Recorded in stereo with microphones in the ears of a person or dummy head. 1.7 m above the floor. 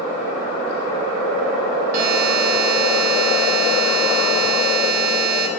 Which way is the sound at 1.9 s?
55° right (ahead or behind).